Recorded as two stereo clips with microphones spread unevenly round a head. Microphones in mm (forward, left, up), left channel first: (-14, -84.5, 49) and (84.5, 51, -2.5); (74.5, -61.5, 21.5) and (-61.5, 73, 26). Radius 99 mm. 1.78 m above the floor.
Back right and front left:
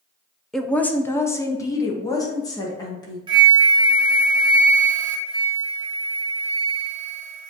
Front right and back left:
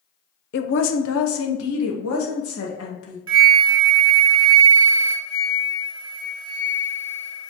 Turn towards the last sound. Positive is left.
turn(degrees=-105)